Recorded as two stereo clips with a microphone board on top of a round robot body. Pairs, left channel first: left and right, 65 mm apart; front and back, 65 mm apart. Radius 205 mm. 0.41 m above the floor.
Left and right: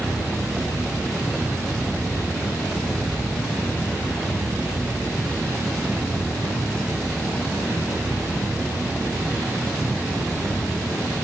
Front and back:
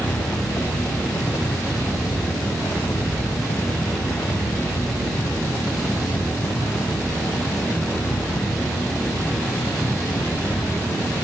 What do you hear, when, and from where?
0.0 s a helicopter: 5° right